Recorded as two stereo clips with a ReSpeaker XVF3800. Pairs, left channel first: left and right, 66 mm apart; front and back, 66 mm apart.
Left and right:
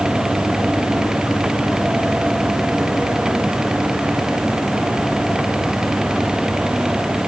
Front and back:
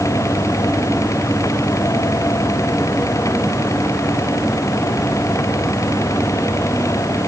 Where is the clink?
No clink in this recording.